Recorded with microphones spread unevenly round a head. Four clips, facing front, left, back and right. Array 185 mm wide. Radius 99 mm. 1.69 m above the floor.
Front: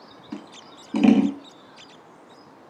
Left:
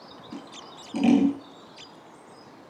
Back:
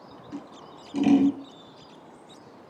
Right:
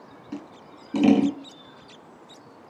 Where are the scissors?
15° right, 6.5 m.